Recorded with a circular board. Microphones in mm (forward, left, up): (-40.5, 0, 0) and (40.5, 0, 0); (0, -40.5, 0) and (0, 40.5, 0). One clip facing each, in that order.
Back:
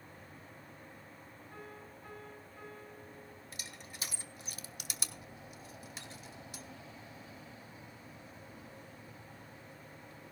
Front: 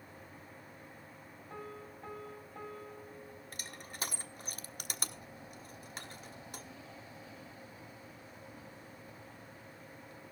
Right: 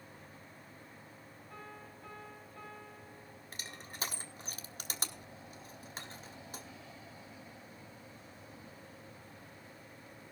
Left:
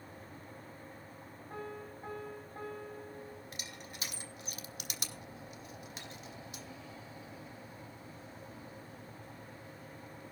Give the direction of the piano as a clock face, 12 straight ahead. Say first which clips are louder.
Front 5 dB, left 7 dB; 11 o'clock.